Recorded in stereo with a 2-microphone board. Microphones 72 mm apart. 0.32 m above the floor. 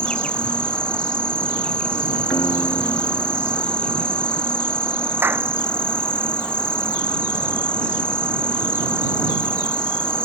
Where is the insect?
15° left (ahead or behind).